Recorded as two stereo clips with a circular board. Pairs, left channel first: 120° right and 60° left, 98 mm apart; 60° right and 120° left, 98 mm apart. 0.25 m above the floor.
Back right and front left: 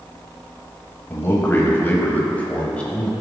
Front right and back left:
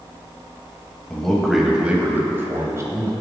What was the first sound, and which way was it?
A man speaking, 130° right.